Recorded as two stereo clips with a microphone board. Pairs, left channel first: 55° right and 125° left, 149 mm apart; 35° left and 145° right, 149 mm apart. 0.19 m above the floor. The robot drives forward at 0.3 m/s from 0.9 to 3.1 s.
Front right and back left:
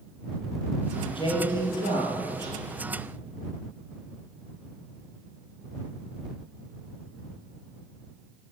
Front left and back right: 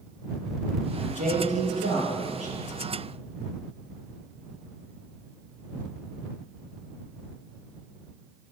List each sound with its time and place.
1.0 s a man speaking: 110° right, 4.5 m; by 2.5 s 115° right, 4.5 m